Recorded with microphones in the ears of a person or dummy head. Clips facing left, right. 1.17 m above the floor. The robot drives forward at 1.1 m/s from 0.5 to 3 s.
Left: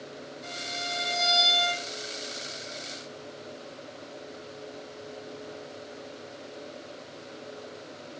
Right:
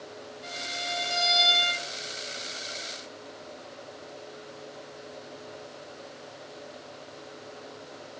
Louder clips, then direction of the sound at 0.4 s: Right 1 dB; centre (ahead or behind).